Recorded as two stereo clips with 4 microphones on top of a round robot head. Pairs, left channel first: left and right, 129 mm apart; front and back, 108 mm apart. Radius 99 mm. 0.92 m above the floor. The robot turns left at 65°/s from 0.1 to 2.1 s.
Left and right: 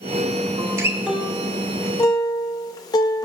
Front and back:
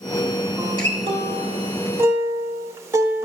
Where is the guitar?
130° right, 0.6 m; by 3.2 s 130° left, 0.6 m.